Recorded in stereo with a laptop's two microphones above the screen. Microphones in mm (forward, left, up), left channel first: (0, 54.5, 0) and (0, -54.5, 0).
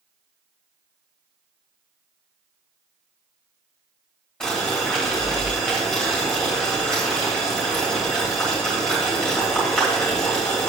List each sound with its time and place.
4.4 s boiling: 5° left (ahead or behind), 2.5 m